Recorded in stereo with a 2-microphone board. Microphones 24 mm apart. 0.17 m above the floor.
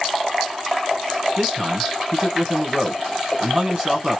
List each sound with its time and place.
1.4 s a man speaking: 25° right (ahead or behind), 1.2 m